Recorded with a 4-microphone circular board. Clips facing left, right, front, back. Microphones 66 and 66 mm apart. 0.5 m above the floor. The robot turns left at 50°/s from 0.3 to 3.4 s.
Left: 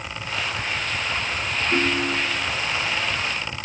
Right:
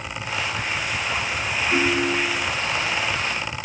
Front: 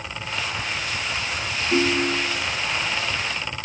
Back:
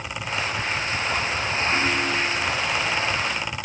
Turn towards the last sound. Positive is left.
turn(degrees=-85)